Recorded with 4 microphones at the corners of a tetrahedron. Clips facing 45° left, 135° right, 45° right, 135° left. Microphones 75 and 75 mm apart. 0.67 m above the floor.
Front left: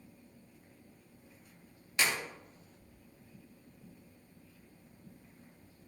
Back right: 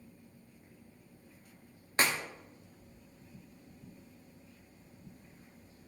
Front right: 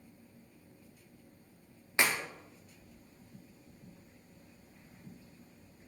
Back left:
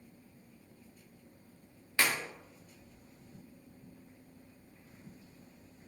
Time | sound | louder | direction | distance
2.0 | a clap | back right 2 dB, front right 1 dB | 105° right | 0.6 m